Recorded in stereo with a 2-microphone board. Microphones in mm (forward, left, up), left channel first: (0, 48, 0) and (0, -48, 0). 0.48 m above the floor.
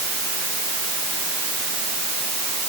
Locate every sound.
Only background noise.